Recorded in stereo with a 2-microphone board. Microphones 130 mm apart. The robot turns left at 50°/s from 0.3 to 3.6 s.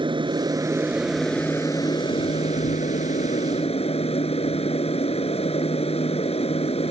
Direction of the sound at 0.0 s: 135° right.